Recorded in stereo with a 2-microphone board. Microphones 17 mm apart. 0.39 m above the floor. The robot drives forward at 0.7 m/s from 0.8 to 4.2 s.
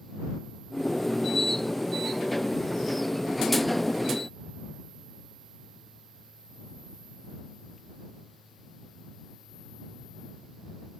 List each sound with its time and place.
Only background noise.